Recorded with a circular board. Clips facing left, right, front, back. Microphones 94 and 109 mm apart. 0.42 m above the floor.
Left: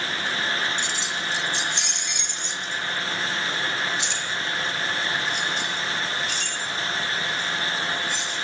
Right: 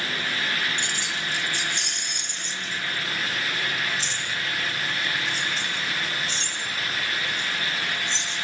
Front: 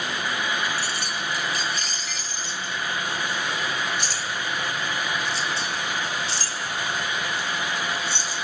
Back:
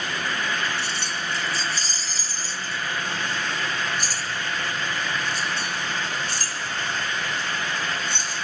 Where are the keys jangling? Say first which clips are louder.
Left 1 dB, even; 115° right, 3 m; by 8.4 s 150° right, 7 m.